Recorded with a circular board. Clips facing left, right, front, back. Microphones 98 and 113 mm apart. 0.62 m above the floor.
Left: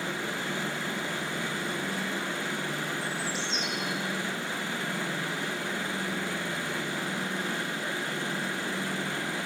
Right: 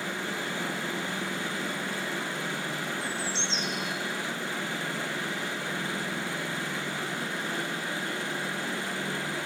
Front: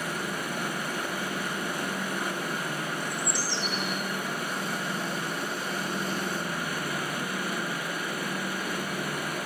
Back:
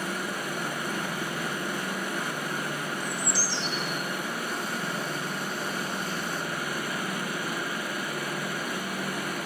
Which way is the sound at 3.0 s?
30° right.